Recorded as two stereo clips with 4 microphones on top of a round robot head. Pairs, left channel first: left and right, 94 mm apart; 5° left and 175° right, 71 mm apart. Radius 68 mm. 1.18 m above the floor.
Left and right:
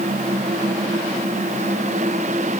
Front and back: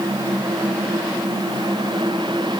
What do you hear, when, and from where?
Only background noise.